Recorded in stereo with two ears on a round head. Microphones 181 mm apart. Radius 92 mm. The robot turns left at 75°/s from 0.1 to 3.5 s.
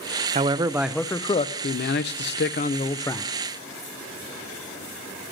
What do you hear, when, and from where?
0.3 s a man speaking: 135° right, 0.6 m; by 3.3 s straight ahead, 0.6 m